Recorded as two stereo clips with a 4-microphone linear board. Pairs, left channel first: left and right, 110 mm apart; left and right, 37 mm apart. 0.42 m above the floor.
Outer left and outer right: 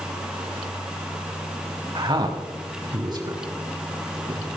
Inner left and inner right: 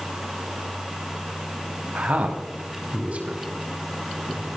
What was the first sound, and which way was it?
A man speaking, 45° right (ahead or behind).